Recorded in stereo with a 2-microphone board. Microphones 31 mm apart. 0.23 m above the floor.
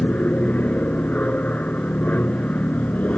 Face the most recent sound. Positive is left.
turn(degrees=55)  # may be behind; listen again after turning